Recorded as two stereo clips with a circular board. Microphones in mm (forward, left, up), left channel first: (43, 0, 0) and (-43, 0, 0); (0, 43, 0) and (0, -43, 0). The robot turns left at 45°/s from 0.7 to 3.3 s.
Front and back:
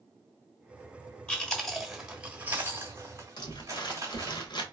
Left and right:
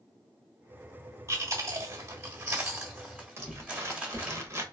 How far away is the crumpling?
About 0.8 m.